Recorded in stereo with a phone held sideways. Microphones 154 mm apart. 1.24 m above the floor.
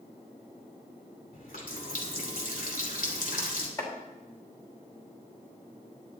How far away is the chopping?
About 3 m.